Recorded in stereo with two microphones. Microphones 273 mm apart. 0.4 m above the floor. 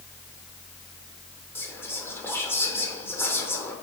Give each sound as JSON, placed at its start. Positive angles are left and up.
{"t": 1.6, "sound": "whispering", "side_deg": 10, "distance_m": 0.7}